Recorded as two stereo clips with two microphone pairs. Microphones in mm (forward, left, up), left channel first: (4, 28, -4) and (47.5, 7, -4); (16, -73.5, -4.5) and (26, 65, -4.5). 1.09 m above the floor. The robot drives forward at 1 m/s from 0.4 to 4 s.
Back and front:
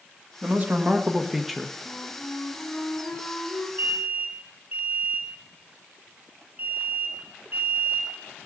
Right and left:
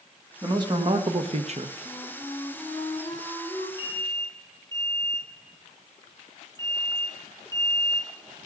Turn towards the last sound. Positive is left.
turn(degrees=25)